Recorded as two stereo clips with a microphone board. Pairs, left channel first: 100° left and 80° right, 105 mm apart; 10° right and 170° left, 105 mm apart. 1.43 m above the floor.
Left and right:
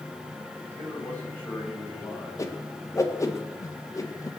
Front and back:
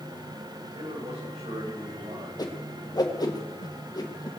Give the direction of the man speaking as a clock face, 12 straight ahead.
6 o'clock.